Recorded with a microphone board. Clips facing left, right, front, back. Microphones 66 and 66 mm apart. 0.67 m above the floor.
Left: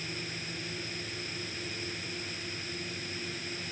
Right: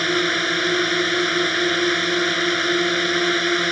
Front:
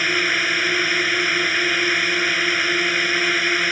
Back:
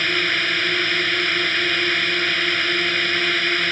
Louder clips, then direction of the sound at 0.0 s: Right 20 dB, front 1 dB; 80° right.